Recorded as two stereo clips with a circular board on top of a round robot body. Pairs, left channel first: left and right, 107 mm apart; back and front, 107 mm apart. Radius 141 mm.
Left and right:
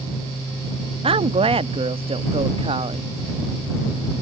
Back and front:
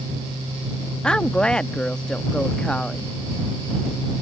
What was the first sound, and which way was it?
A woman speaking, 100° right.